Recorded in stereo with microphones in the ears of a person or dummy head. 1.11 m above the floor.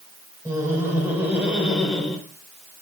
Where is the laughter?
20° right (ahead or behind), 4.5 m; by 2.2 s centre (ahead or behind), 4.5 m.